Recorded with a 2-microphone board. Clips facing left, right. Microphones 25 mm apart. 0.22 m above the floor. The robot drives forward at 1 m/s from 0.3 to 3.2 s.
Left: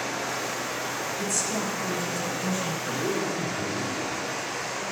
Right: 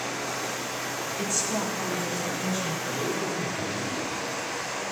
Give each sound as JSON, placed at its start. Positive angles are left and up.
{"t": 0.0, "sound": "running water", "side_deg": 50, "distance_m": 3.0}
{"t": 1.2, "sound": "a woman speaking", "side_deg": -20, "distance_m": 1.3}
{"t": 2.9, "sound": "a man speaking", "side_deg": 30, "distance_m": 3.0}